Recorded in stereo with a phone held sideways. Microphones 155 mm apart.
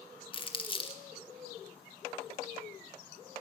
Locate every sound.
0.3 s crumpling: 30° left (ahead or behind), 0.7 m